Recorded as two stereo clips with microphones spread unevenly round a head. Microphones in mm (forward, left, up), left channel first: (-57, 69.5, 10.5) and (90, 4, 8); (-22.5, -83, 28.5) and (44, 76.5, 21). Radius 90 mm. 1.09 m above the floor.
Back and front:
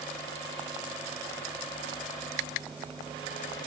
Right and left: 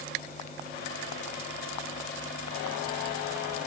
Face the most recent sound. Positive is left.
No sound to turn to.